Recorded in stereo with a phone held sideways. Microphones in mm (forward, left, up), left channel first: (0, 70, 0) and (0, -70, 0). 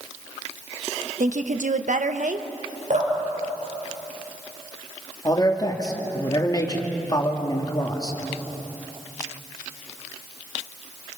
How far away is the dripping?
About 6 m.